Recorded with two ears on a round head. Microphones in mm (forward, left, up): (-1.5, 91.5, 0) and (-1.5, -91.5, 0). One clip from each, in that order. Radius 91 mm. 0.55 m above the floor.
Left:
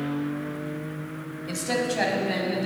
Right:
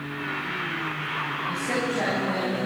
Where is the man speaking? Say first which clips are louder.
Left 4 dB; 70° left (ahead or behind), 3 m.